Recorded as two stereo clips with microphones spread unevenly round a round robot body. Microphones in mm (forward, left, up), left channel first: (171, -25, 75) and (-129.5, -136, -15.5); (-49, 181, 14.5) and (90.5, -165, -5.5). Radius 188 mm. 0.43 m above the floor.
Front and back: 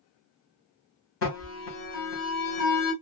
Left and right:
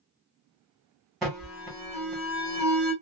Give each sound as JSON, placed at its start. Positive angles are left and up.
{"t": 1.2, "sound": "an alarm", "azimuth_deg": 15, "distance_m": 2.0}